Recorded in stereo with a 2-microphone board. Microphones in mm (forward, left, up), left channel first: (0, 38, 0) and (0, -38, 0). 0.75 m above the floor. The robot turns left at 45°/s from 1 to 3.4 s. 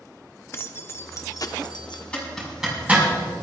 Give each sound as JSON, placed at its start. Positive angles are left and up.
{"t": 0.5, "sound": "keys jangling", "azimuth_deg": 145, "distance_m": 0.8}
{"t": 2.1, "sound": "a zipper", "side_deg": 15, "distance_m": 4.5}